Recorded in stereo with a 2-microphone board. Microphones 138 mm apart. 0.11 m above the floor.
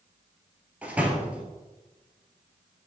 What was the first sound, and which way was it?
A door slam, 10° right (ahead or behind).